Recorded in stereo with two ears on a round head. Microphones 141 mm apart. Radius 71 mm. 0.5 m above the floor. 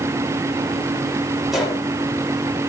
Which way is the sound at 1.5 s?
Centre (ahead or behind).